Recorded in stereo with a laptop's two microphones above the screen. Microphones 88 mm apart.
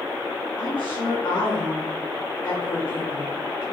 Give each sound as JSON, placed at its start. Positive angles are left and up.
{"t": 0.6, "sound": "a woman speaking", "side_deg": 75, "distance_m": 1.7}